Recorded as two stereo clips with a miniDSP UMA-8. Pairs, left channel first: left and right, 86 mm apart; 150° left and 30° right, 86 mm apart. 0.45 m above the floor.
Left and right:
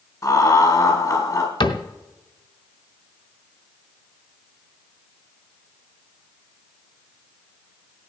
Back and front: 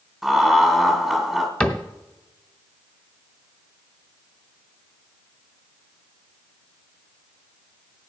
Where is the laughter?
60° left, 1.3 m.